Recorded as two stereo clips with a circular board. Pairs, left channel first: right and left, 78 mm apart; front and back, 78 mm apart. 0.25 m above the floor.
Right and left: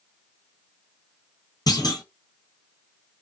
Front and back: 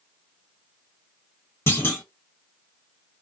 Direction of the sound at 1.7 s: 60° right.